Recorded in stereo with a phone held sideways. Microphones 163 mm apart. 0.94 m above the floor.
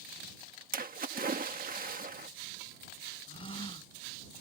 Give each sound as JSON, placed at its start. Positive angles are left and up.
{"t": 0.7, "sound": "a splash", "side_deg": -60}
{"t": 3.3, "sound": "a gasp", "side_deg": 30}